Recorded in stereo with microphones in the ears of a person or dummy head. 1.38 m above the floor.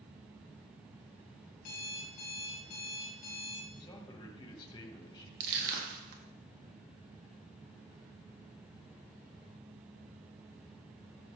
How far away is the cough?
I don't hear a cough.